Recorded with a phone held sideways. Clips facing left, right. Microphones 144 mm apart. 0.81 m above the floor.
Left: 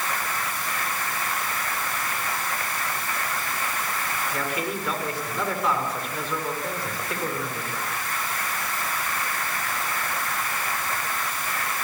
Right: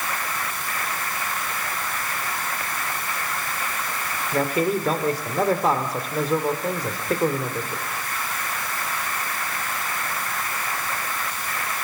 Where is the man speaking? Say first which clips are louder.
Right 10 dB; 40° right (ahead or behind), 2.5 m.